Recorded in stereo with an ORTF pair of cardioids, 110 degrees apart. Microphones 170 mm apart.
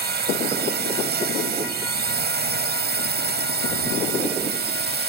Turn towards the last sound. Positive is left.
turn(degrees=-70)